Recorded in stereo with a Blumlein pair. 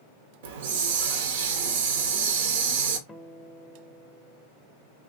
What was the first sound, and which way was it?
A hiss, 55° right.